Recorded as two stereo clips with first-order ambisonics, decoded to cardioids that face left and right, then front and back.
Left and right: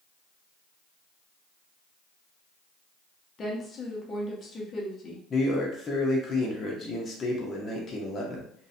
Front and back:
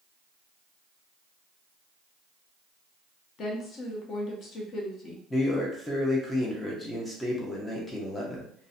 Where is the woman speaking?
35° left, 0.6 m.